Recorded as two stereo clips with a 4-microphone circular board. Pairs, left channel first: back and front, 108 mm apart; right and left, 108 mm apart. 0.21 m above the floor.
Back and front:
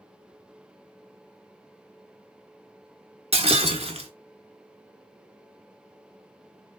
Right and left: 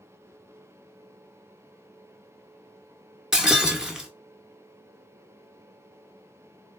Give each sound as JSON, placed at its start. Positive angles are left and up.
{"t": 3.3, "sound": "breaking glass", "azimuth_deg": 5, "distance_m": 0.8}